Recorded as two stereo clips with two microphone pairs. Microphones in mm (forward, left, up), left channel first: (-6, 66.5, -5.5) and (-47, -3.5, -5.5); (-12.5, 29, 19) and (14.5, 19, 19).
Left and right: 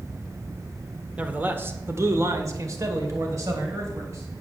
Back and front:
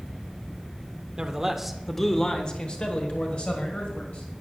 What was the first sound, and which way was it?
A man speaking, 60° right.